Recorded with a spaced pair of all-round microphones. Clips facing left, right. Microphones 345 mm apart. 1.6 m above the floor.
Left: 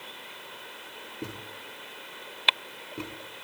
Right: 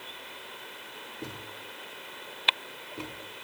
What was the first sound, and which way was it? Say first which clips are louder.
A thud: left 3 dB; 25° left (ahead or behind).